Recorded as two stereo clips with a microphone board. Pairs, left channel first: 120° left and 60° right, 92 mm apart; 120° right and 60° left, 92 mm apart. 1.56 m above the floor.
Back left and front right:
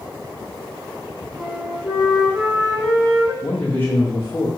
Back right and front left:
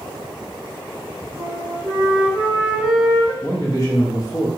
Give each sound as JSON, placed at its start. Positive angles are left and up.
{"t": 1.4, "sound": "a flute", "azimuth_deg": -135, "distance_m": 1.6}
{"t": 3.4, "sound": "a man speaking", "azimuth_deg": -170, "distance_m": 0.6}